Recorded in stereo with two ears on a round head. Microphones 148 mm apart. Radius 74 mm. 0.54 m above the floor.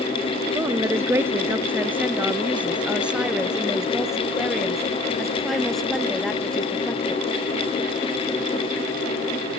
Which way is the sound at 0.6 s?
15° right (ahead or behind).